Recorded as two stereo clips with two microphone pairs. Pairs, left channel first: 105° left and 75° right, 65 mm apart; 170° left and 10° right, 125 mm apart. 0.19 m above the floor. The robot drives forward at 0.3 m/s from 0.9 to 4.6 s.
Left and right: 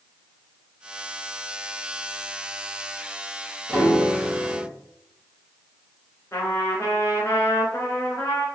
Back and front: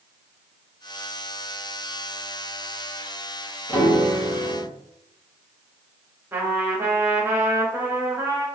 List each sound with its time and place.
3.7 s a piano: 150° right, 2.0 m; by 4.7 s 155° right, 2 m
6.3 s a trumpet: 60° left, 1.0 m